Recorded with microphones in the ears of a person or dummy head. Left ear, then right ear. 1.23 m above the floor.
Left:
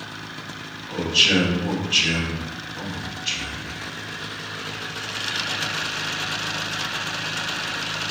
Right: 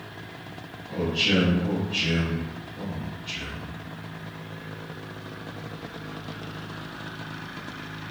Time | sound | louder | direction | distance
0.9 | a man speaking | left 6 dB | 50° left (ahead or behind) | 1.9 m